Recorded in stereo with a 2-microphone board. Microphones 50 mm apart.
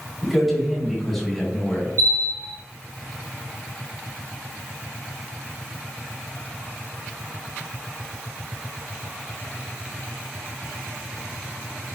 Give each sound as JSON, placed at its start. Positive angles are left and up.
{"t": 0.2, "sound": "a man speaking", "side_deg": -5, "distance_m": 1.5}
{"t": 2.0, "sound": "a bell", "side_deg": -65, "distance_m": 1.1}